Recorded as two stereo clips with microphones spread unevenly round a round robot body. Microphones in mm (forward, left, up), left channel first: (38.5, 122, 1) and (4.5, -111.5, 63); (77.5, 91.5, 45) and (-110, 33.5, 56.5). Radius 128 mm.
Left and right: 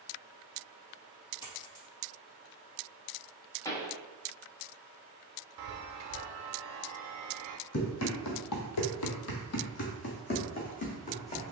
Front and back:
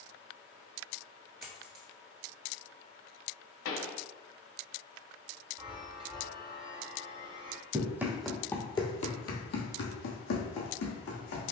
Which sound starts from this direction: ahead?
A pop, at 3.6 s.